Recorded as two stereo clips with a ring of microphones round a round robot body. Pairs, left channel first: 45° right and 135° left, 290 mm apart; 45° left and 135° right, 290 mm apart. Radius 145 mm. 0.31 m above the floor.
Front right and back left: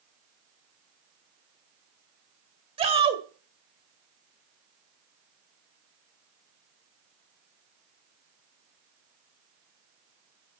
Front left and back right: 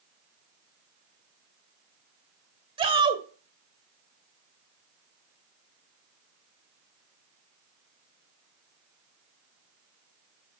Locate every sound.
2.8 s a shout: 175° left, 1.5 m